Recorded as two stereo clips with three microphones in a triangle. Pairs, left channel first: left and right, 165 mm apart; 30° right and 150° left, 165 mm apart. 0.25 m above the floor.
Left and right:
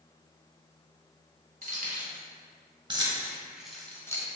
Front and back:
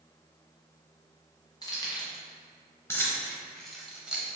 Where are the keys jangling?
90° right, 1.3 m; by 4.3 s 85° left, 0.8 m.